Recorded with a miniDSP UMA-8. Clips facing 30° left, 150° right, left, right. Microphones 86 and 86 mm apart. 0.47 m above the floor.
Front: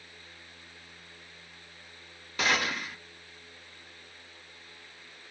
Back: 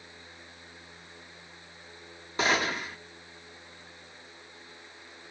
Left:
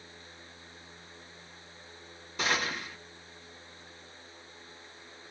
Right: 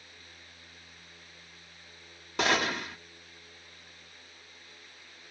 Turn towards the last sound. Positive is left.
turn(degrees=-90)